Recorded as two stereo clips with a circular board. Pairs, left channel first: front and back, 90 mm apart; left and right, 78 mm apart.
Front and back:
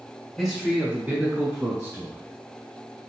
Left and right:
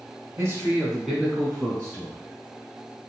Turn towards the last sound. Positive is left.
turn(degrees=140)